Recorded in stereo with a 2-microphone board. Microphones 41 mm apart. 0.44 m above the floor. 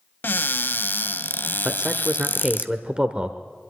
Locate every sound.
0.2 s a cupboard door: 55° left (ahead or behind), 0.7 m
1.6 s a man speaking: 30° right (ahead or behind), 1.1 m